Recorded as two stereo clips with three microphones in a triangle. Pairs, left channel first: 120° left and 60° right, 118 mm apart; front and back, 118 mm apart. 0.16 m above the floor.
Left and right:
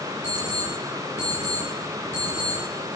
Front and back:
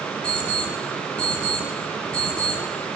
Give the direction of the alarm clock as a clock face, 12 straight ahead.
3 o'clock.